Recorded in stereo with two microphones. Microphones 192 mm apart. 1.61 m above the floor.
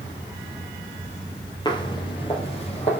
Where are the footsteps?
25° left (ahead or behind), 3 m; by 3.0 s 35° left (ahead or behind), 3.5 m.